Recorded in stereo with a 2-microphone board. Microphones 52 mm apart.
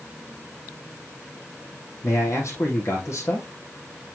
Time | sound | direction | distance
2.0 | a man speaking | 65° left (ahead or behind) | 4 m